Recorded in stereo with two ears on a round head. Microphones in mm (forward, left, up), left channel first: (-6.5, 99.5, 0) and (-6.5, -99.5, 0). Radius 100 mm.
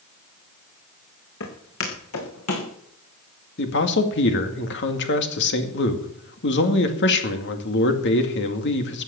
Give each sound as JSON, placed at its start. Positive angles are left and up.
{"t": 1.4, "sound": "footsteps", "side_deg": 70, "distance_m": 4.5}
{"t": 3.6, "sound": "a man speaking", "side_deg": 55, "distance_m": 2.0}